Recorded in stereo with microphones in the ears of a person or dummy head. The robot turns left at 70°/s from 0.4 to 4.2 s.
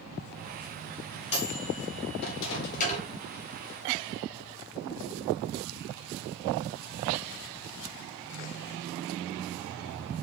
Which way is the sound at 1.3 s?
35° left (ahead or behind).